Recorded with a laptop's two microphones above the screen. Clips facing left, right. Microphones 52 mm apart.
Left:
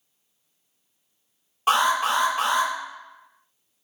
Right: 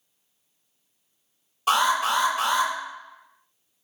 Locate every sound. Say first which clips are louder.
1.7 s an alarm: left 1 dB; 35° left (ahead or behind), 1.6 m